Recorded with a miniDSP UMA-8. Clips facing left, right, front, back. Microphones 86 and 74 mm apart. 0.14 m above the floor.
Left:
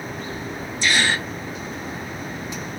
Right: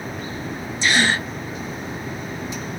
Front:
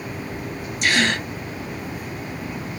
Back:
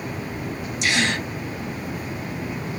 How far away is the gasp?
About 2 m.